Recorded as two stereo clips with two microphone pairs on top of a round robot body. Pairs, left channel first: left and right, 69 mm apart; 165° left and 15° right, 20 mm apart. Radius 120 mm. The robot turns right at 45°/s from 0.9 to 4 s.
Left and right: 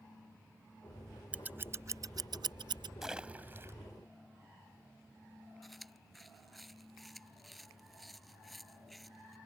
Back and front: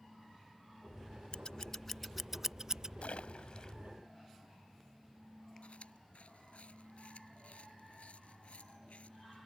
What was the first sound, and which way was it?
Scissors, 150° right.